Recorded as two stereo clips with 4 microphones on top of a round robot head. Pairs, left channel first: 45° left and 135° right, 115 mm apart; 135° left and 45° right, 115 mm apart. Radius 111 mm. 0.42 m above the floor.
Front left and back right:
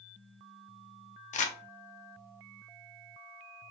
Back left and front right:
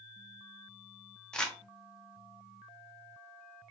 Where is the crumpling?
50° left, 0.5 m.